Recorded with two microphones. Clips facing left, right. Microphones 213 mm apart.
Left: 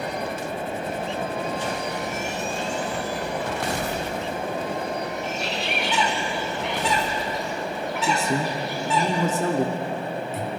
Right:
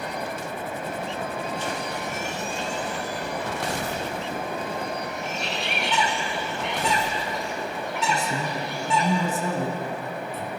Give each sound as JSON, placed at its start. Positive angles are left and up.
{"t": 5.2, "sound": "a bird", "side_deg": 0, "distance_m": 4.0}
{"t": 8.0, "sound": "a man speaking", "side_deg": 75, "distance_m": 2.0}